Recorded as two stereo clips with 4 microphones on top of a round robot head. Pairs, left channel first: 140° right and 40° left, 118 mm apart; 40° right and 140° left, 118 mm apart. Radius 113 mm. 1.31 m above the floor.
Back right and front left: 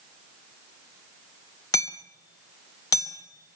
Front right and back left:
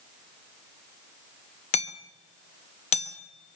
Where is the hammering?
80° right, 1.3 m.